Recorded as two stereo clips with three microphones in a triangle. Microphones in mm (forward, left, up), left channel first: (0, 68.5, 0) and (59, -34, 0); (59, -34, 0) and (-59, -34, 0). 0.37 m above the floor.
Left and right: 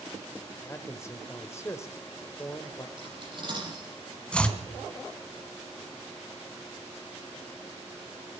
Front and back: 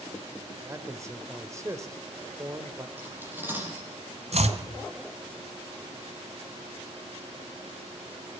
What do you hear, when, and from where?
0.6 s a man speaking: 155° left, 1.5 m
3.0 s cutlery clinking: 110° right, 7 m
4.3 s chopping: 160° right, 1.9 m